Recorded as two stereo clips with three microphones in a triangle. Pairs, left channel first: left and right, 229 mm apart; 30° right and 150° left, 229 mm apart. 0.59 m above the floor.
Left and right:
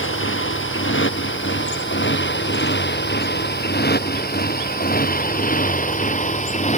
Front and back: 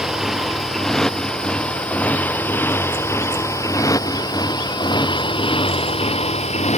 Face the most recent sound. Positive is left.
turn(degrees=30)